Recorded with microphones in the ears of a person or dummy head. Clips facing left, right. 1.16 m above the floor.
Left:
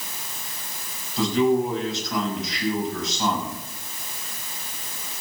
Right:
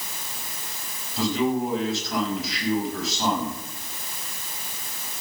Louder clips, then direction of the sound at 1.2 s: Left 3 dB; centre (ahead or behind).